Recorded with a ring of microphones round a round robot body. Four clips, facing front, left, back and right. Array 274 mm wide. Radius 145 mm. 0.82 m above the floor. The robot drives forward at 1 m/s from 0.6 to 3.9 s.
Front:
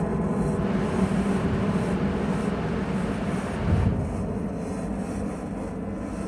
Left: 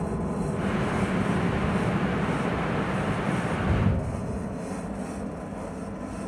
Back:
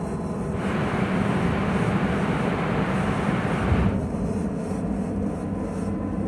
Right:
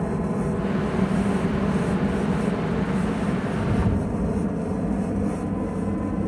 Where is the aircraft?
50° right; by 6.3 s 115° right.